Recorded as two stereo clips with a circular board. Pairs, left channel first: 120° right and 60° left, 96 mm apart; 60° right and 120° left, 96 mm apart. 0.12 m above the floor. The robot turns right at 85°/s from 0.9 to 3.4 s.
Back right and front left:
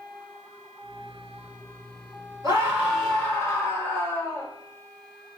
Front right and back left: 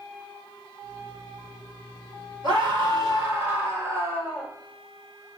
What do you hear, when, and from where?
2.4 s a scream: 95° left, 2.0 m; by 4.5 s straight behind, 2.0 m